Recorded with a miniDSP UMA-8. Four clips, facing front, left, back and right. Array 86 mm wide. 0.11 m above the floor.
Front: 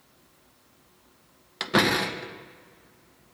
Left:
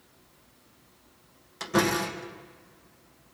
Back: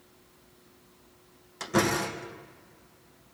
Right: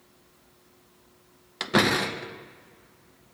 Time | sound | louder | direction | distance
1.6 | a door slam | right 2 dB, front 3 dB | 45° right | 1.3 m